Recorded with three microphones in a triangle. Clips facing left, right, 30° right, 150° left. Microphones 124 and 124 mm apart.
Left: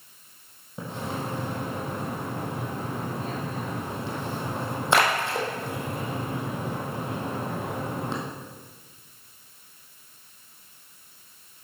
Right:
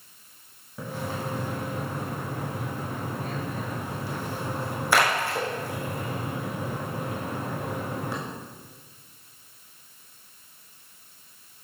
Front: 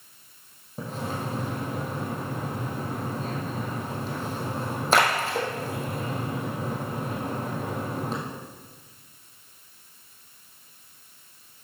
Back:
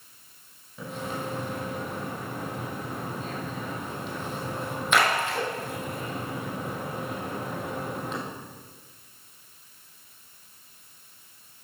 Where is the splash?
25° left, 2.5 m.